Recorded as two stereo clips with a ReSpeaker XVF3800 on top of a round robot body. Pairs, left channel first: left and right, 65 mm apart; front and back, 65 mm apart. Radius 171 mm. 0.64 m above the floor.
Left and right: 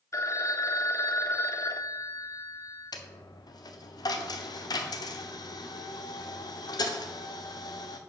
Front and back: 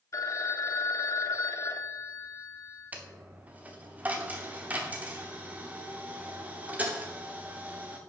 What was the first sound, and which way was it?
A phone ringing, 45° left.